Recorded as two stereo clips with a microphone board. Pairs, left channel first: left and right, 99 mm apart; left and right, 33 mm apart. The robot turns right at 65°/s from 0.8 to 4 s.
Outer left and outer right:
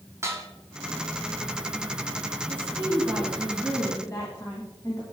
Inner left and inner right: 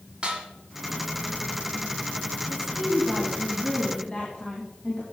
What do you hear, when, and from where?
0.2 s dishes clattering: 25° right (ahead or behind), 1.7 m
2.5 s a woman speaking: 60° right, 2 m; by 5.0 s 40° left, 2 m